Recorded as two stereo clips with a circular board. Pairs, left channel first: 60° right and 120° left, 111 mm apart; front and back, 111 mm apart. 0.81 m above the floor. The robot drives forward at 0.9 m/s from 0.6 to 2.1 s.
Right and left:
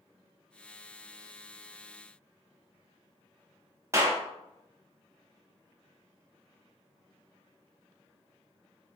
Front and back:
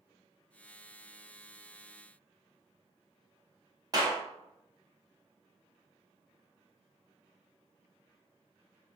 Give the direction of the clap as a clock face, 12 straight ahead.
7 o'clock.